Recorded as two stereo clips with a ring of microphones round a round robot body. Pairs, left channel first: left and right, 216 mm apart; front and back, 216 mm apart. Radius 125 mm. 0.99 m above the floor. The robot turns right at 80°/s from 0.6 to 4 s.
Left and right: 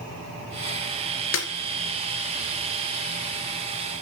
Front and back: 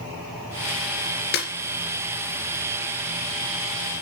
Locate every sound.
1.3 s a snare drum: 50° left, 3 m; by 1.5 s 60° left, 3 m